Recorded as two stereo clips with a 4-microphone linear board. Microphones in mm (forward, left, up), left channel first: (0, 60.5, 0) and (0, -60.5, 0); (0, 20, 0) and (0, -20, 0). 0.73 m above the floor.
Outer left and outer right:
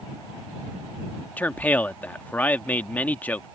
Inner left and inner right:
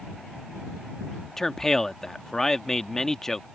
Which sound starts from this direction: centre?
A man speaking, at 1.4 s.